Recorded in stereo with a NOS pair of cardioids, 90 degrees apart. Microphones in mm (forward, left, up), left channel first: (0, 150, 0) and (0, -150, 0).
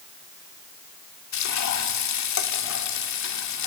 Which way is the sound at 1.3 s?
65° left.